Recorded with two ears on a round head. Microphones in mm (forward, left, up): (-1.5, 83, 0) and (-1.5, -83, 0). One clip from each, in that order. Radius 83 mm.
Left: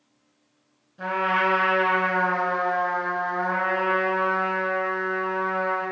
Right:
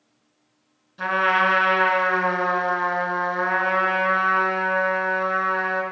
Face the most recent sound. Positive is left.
turn(degrees=-60)  # may be behind; listen again after turning